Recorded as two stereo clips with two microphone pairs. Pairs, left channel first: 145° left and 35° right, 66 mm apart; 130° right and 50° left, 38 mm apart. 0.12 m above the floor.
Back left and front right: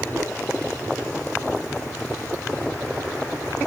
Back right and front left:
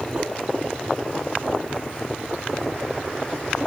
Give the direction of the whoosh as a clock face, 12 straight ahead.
12 o'clock.